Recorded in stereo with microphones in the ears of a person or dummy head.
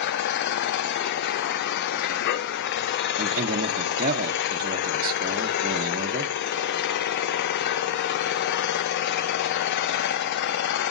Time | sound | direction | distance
0.0 | an engine running | 55° left (ahead or behind) | 0.7 m
3.2 | a man speaking | 45° right (ahead or behind) | 1.1 m